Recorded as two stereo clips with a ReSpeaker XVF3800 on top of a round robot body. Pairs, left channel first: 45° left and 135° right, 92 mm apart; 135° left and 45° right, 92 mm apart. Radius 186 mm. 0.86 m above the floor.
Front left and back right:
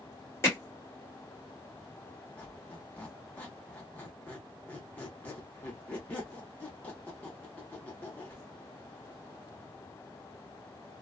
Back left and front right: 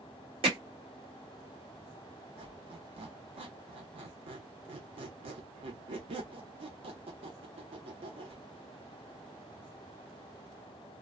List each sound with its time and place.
0.4 s hammering: 20° right, 2 m
2.4 s a squeak: 30° right, 0.8 m